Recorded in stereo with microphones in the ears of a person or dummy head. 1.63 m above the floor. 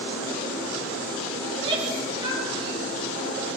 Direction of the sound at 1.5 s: 30° right (ahead or behind).